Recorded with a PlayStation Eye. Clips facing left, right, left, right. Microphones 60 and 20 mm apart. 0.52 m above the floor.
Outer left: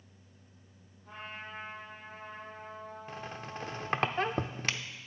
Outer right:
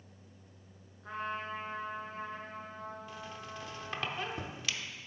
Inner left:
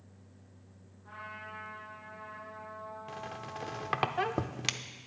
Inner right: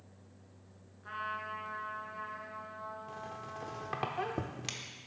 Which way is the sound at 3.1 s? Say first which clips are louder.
Outer left 3 dB, inner left 2 dB; 45° left (ahead or behind).